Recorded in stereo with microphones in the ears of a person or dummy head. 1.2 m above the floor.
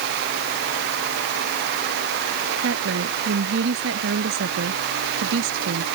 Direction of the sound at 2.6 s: 80° right.